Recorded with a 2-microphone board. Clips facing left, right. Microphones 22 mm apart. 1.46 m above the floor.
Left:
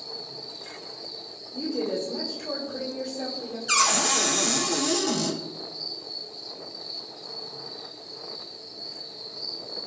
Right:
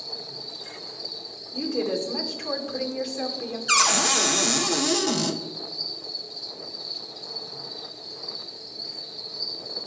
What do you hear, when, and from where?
0.0 s an insect: 75° right (ahead or behind), 4 m
1.5 s a woman speaking: 80° right, 2.5 m
3.7 s a cupboard door: 20° right (ahead or behind), 1.0 m